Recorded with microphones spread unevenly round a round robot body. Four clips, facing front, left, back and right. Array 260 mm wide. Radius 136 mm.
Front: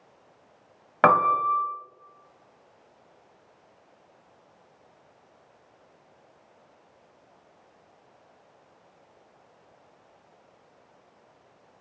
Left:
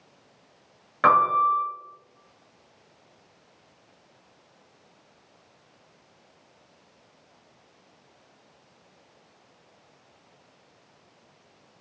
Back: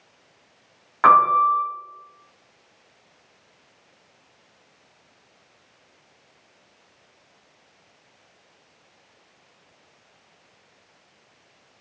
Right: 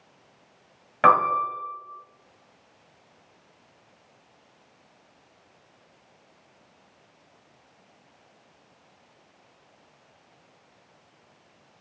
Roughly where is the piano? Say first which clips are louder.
Even, back 5 dB; ahead.